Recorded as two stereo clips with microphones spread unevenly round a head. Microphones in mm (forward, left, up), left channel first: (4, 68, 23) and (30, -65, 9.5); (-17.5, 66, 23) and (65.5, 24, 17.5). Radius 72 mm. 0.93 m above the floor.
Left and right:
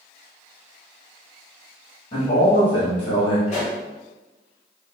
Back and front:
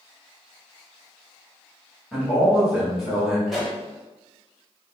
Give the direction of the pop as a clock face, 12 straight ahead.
10 o'clock.